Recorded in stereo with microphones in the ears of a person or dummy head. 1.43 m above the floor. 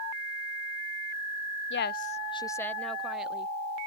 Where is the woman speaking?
75° left (ahead or behind); by 3.5 s 5° right (ahead or behind).